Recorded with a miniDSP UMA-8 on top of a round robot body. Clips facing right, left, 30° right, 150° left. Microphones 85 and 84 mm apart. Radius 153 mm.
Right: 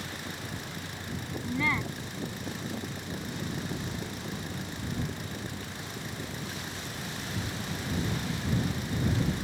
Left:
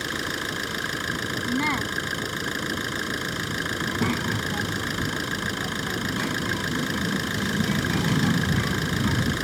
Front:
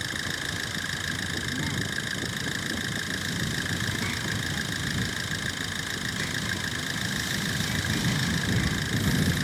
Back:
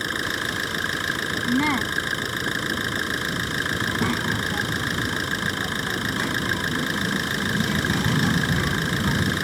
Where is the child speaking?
105° left.